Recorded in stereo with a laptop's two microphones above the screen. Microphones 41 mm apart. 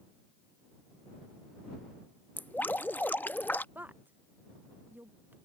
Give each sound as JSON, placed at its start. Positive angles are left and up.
{"t": 2.4, "sound": "dripping", "side_deg": 50}
{"t": 3.8, "sound": "a woman speaking", "side_deg": -50}